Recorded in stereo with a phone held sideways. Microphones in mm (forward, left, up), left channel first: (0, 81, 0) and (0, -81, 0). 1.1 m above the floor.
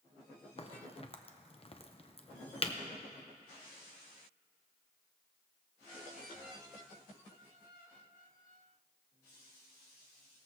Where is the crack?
35° left (ahead or behind), 0.8 m.